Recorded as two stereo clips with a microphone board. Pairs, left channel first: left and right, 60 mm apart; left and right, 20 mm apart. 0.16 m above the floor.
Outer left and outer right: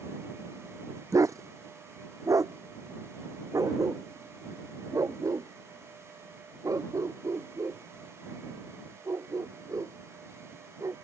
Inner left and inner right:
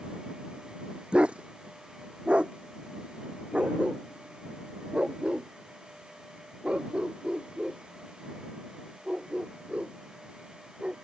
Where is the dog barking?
60° right (ahead or behind); by 10.9 s 65° right (ahead or behind).